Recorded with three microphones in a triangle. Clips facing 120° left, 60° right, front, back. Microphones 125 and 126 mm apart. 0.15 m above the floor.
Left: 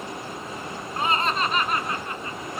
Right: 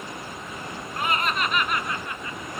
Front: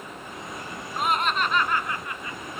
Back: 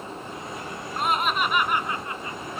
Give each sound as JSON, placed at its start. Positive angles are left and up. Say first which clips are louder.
{"t": 1.0, "sound": "laughter", "louder": "left 2 dB, even", "azimuth_deg": 85, "distance_m": 1.4}